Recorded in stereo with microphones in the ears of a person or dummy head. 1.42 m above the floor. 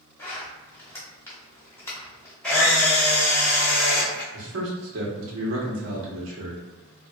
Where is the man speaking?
85° right, 1.0 m.